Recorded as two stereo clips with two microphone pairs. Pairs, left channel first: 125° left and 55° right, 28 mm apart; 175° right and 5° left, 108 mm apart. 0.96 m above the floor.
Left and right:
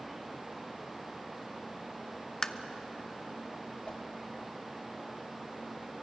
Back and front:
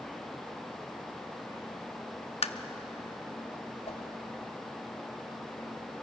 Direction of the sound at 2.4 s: 175° right.